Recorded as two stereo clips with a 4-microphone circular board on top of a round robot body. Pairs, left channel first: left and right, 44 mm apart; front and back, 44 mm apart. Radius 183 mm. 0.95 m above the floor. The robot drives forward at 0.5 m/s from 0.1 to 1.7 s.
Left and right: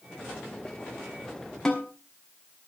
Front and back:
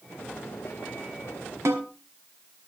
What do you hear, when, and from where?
1.6 s a snare drum: 170° left, 2.5 m